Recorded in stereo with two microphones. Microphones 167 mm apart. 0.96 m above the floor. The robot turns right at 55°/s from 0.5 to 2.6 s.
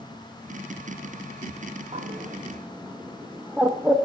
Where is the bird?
45° right (ahead or behind), 0.5 m; by 4.0 s 10° right (ahead or behind), 0.5 m.